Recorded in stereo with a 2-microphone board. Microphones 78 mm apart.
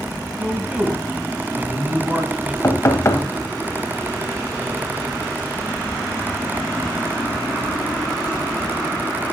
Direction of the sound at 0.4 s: 15° right (ahead or behind).